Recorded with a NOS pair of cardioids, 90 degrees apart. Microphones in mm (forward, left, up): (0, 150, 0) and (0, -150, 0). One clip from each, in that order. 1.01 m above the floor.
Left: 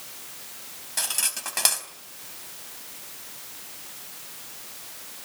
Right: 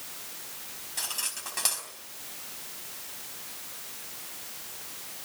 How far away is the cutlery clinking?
About 4 m.